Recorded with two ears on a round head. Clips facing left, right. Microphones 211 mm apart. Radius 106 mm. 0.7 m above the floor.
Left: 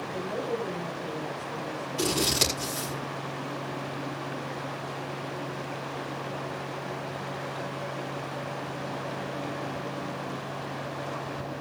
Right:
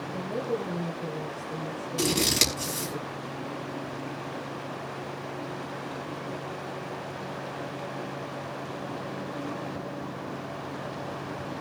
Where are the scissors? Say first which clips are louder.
Right 1 dB; 25° right (ahead or behind), 5 m.